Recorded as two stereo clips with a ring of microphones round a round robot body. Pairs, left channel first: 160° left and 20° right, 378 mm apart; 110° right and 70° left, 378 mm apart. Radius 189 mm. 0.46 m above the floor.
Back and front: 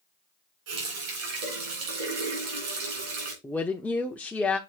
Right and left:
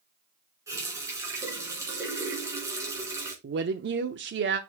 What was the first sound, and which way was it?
A running tap, 15° right.